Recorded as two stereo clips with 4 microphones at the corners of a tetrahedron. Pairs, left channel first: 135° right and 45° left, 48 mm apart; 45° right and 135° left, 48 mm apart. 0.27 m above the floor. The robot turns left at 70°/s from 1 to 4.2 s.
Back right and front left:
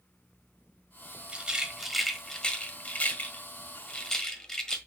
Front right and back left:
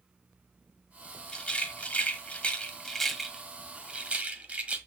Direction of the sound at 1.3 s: 5° left.